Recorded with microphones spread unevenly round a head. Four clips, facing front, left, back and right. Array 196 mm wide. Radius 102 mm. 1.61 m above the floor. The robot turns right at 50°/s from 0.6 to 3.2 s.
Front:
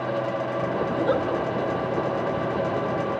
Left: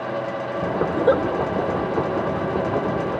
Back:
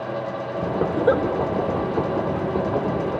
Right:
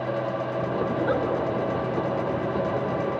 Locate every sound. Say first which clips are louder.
0.9 s a giggle: left 8 dB, back 5 dB; 120° left, 4.5 m; by 1.2 s 140° left, 4.5 m